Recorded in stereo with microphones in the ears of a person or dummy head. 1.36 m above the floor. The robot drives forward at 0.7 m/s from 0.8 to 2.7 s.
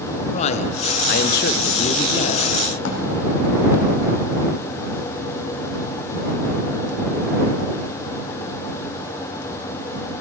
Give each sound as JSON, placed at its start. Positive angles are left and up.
{"t": 0.3, "sound": "a man speaking", "side_deg": 40, "distance_m": 0.7}
{"t": 2.8, "sound": "a drawer", "side_deg": 60, "distance_m": 2.0}